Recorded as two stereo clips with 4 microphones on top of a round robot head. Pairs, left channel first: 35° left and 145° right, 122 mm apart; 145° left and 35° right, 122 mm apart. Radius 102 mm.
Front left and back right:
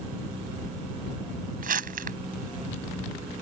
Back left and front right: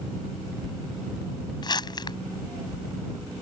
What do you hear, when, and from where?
1.6 s crumpling: 155° right